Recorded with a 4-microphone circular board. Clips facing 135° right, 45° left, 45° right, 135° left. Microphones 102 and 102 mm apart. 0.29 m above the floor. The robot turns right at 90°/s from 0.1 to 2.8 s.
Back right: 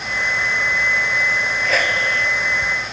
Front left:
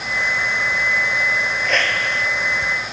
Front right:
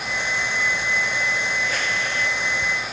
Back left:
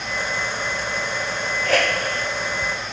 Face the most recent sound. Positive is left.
turn(degrees=-125)